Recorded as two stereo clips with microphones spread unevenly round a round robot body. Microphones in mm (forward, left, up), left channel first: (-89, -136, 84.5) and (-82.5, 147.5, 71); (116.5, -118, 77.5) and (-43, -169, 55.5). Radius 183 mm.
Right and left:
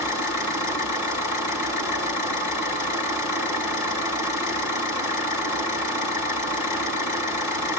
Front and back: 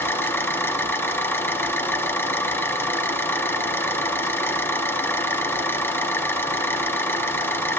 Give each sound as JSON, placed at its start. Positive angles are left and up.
{"t": 0.0, "sound": "an engine running", "azimuth_deg": -60, "distance_m": 5.5}